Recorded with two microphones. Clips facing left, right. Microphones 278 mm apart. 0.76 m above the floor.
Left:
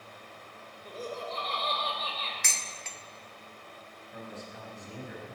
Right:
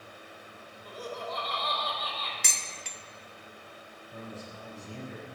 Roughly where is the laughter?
Left.